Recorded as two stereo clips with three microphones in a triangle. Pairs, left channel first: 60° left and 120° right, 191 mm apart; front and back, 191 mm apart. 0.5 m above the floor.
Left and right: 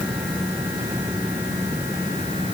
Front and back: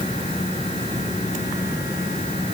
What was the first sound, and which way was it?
Only background noise.